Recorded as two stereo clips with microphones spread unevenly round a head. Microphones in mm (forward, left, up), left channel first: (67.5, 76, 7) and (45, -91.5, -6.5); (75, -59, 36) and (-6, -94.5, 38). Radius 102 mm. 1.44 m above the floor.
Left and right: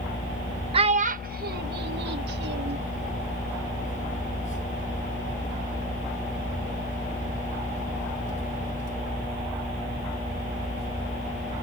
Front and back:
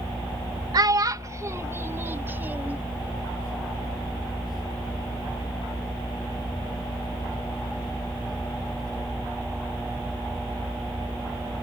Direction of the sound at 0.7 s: 150° right.